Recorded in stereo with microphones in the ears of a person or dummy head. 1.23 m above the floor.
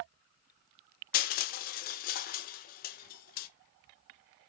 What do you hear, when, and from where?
1.1 s crushing: 50° left (ahead or behind), 0.8 m